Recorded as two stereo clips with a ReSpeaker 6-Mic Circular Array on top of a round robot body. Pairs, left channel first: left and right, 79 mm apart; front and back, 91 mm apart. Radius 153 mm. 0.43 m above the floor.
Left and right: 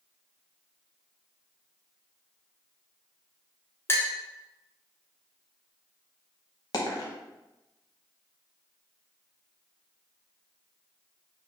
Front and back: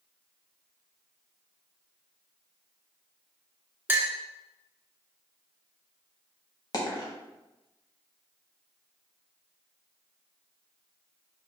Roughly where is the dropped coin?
Ahead left.